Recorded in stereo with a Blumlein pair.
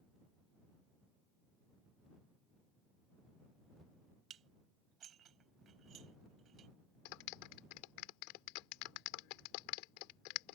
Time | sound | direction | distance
4.3 | dishes clattering | 25° right | ?
7.0 | a clap | 45° left | ?